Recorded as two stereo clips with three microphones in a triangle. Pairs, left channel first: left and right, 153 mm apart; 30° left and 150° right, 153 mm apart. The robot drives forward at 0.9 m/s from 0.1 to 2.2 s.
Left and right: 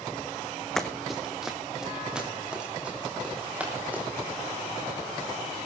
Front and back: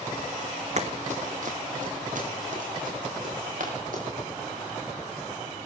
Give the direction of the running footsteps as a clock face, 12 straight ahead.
6 o'clock.